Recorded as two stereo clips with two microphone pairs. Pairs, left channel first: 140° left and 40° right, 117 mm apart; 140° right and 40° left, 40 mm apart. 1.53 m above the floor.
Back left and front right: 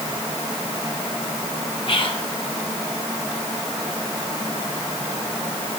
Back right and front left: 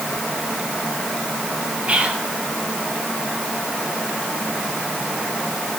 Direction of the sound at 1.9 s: 95° left.